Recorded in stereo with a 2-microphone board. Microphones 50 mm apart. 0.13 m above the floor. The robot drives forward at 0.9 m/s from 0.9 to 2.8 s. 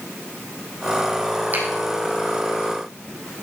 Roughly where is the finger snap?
Right.